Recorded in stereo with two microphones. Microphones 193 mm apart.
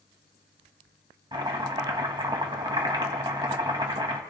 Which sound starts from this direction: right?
Chopping, at 1.3 s.